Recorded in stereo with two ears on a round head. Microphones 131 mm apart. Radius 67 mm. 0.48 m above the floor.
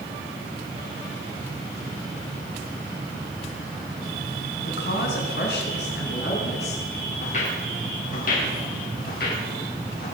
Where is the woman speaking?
75° left (ahead or behind), 4 m; by 6.8 s 80° left, 5.5 m.